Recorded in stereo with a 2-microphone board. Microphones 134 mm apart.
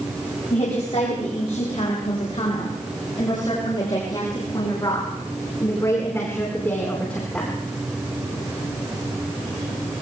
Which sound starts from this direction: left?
A woman speaking, at 0.5 s.